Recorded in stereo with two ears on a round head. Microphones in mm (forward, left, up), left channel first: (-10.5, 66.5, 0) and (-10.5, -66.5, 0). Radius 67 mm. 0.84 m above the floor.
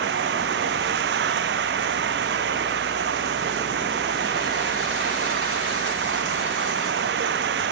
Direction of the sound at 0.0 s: 85° right.